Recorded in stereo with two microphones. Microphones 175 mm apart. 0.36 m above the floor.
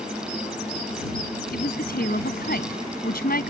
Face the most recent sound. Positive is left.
turn(degrees=60)  # may be behind; listen again after turning